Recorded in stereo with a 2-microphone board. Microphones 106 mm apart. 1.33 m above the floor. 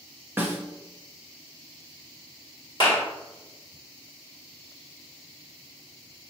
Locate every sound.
0.4 s a snare drum: 20° right (ahead or behind), 0.8 m
2.8 s a clap: 45° left (ahead or behind), 1.4 m